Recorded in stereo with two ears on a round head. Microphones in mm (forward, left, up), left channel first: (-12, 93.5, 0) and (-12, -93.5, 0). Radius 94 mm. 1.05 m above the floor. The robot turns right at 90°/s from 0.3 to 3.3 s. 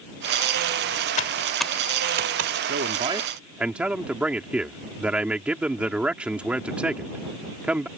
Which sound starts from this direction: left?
Typing on a keyboard, at 1.2 s.